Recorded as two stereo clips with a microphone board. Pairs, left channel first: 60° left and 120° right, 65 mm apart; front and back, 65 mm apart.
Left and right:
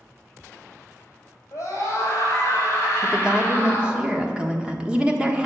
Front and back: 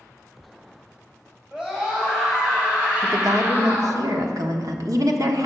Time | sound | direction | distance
1.5 | a scream | 100° left | 4.5 m
3.0 | a woman speaking | 165° left | 1.3 m